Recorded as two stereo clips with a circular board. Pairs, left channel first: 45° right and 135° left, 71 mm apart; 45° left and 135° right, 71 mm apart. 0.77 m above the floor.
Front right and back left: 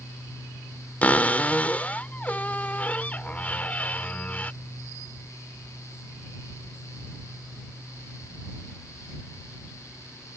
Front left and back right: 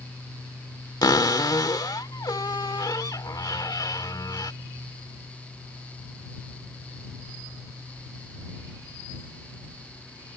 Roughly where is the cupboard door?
Ahead left.